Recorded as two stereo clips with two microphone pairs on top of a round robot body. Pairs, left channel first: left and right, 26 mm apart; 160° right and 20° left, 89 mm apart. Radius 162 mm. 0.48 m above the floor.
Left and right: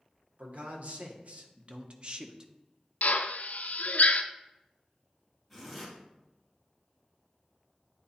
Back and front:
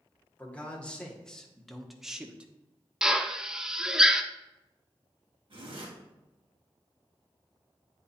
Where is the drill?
100° left, 0.5 m.